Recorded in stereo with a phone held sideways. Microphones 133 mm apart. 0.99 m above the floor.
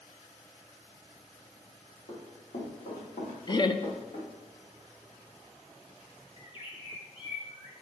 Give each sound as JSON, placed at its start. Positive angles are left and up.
{"t": 2.1, "sound": "running footsteps", "side_deg": 60, "distance_m": 3.5}
{"t": 3.5, "sound": "laughter", "side_deg": 35, "distance_m": 0.5}
{"t": 6.4, "sound": "a bird", "side_deg": 40, "distance_m": 1.3}